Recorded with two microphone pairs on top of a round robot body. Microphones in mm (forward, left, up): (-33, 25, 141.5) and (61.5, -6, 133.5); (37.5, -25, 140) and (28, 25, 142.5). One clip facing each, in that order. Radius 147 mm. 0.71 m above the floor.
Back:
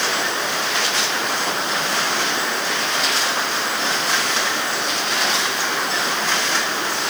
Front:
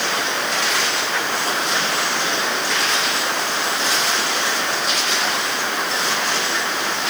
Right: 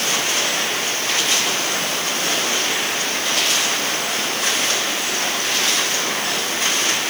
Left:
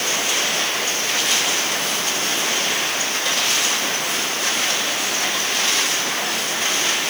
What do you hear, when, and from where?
Only background noise.